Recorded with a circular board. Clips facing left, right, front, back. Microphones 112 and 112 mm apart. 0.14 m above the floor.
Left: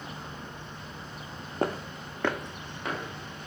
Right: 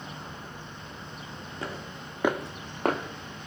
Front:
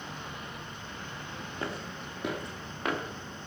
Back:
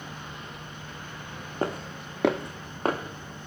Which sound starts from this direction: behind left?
Footsteps, at 1.6 s.